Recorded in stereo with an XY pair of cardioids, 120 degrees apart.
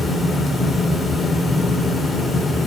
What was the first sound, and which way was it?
A fan, 25° left.